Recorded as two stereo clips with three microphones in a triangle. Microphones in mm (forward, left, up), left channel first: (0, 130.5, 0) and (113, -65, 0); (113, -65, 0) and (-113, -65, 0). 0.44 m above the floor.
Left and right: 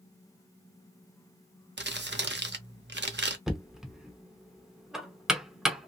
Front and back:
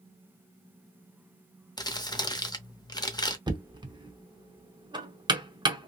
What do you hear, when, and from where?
1.8 s crumpling: 70° right, 0.7 m
3.5 s knocking: 145° right, 0.7 m